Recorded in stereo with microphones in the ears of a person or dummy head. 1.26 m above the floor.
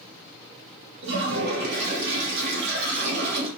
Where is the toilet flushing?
55° right (ahead or behind), 0.9 m.